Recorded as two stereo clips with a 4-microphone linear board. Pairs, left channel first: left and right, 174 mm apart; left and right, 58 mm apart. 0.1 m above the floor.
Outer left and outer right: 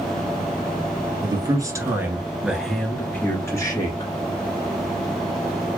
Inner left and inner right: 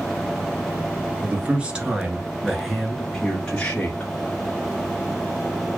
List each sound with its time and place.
1.2 s a man speaking: 25° right (ahead or behind), 1.9 m; by 4.1 s 25° left (ahead or behind), 1.8 m